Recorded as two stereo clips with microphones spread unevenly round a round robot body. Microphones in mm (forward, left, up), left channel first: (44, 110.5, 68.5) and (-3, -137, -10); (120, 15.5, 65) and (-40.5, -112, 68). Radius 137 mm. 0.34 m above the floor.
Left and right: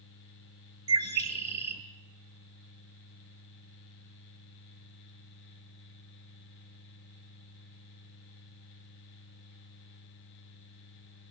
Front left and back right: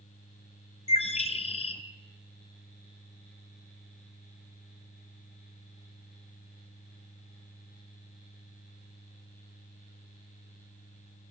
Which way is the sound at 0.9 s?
25° right.